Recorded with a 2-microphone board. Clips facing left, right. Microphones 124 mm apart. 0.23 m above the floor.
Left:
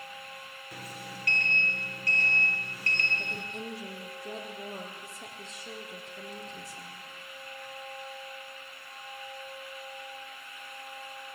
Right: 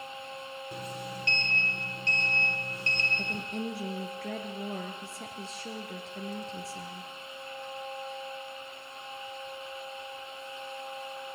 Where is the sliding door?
25° right (ahead or behind), 2.5 m.